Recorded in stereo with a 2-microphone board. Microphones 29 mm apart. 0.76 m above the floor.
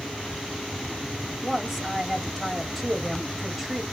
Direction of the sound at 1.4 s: 15° right (ahead or behind).